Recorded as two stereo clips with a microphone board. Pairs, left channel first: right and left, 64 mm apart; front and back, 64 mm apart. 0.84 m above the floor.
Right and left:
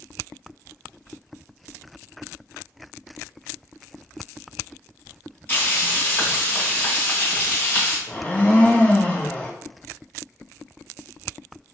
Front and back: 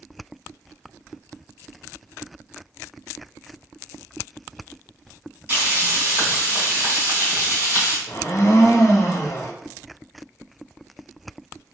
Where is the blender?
25° right, 0.5 m.